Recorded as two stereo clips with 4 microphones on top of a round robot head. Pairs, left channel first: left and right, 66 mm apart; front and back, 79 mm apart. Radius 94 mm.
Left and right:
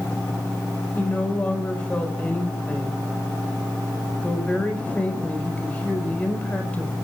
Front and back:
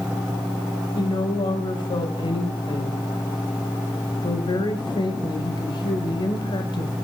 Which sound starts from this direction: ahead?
A woman speaking, at 0.9 s.